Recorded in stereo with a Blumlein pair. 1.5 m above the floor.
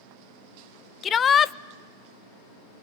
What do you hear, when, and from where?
1.0 s a shout: 20° left, 0.5 m